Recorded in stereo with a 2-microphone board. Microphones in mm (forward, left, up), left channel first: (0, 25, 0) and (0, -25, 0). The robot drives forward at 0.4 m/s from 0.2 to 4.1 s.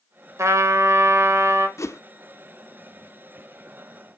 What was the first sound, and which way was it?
A trumpet, 80° right.